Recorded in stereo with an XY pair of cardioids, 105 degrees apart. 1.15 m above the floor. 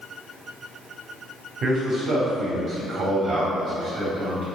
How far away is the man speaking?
About 2.5 m.